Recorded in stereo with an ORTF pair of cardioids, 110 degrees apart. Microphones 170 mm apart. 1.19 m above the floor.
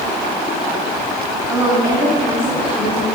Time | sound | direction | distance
1.5 | a woman speaking | 20° right | 2.5 m